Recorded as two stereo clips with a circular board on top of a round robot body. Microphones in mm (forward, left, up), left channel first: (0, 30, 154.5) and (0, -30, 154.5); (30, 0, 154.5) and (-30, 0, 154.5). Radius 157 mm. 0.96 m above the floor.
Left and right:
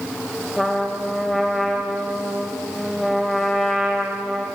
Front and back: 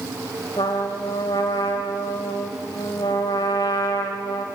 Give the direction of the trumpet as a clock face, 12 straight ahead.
12 o'clock.